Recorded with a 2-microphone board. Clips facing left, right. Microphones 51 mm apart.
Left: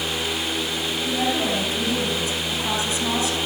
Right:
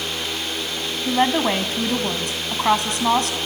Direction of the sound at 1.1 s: 55° right (ahead or behind).